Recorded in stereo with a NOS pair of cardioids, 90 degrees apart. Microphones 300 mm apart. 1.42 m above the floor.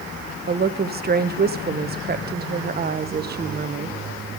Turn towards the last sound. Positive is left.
turn(degrees=-35)